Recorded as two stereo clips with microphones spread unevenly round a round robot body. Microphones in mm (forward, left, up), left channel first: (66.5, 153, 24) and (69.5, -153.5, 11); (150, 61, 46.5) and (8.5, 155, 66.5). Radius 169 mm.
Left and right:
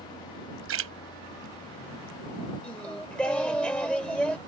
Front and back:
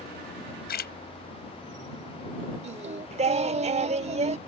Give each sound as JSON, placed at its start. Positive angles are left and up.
{"t": 0.7, "sound": "a splash", "azimuth_deg": -50}
{"t": 2.6, "sound": "singing", "azimuth_deg": 180}